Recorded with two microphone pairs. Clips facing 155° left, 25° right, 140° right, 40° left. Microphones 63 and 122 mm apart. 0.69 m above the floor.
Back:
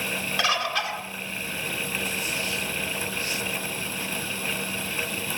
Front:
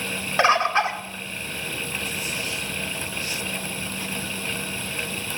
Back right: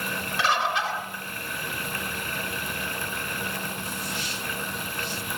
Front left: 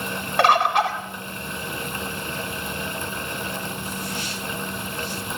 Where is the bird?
25° left, 2 m.